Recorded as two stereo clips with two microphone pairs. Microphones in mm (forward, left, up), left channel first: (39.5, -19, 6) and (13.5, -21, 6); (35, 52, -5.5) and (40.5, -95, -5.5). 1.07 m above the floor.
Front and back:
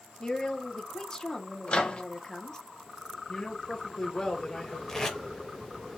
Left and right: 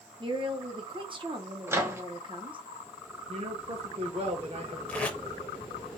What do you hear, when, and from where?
0.2 s a woman speaking: 45° right, 0.8 m
1.7 s a microwave: 20° right, 0.8 m
3.3 s a man speaking: 50° right, 1.3 m
4.9 s tape being pulled: 20° left, 0.8 m